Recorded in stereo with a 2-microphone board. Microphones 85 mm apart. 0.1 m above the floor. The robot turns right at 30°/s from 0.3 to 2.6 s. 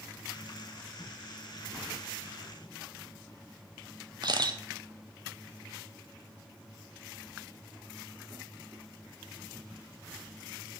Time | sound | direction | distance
4.2 | a camera shutter | 55° right (ahead or behind) | 0.5 m